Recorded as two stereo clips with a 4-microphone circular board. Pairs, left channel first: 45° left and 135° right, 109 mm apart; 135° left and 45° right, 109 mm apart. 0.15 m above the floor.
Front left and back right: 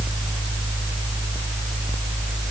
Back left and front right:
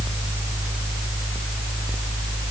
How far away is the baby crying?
I don't hear a baby crying.